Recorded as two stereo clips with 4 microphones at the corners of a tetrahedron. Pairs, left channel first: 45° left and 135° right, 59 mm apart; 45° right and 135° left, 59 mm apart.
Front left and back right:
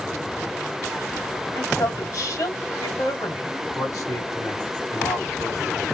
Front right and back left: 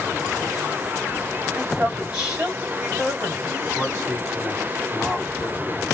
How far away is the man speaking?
About 3.5 m.